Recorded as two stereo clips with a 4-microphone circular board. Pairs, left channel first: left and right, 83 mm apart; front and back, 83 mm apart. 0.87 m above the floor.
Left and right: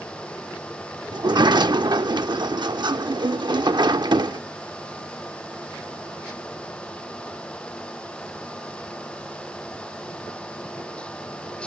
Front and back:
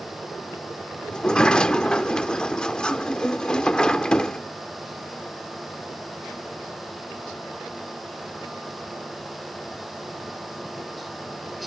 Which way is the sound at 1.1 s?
75° right.